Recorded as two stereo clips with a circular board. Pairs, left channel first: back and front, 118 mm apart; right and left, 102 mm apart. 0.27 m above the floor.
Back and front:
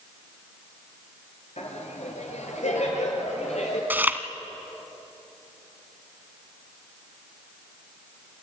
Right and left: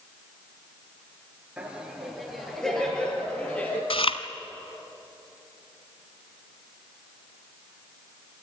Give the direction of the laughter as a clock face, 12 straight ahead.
6 o'clock.